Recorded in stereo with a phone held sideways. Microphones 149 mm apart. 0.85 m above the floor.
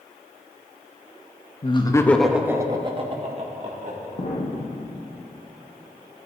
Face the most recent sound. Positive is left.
turn(degrees=45)  # may be behind; listen again after turning